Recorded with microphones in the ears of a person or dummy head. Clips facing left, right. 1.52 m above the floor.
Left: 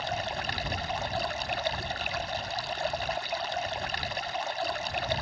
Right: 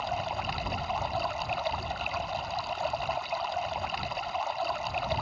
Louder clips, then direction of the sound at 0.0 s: Right 1 dB; 20° left (ahead or behind).